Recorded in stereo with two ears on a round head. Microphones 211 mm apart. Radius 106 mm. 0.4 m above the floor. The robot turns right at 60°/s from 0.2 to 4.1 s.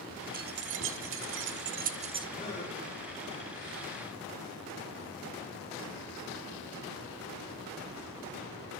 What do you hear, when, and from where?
0.3 s keys jangling: 35° right (ahead or behind), 1.0 m; by 2.3 s 15° right (ahead or behind), 1.0 m
2.4 s a gasp: 20° left (ahead or behind), 6 m; by 2.7 s 40° left (ahead or behind), 6 m